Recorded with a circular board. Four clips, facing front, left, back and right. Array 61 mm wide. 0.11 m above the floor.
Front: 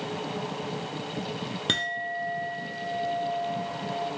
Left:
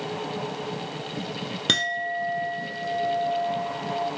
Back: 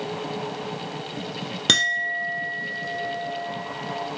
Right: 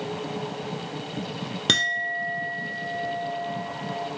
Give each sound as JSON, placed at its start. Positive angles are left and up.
{"t": 1.7, "sound": "a clink", "azimuth_deg": -175, "distance_m": 0.7}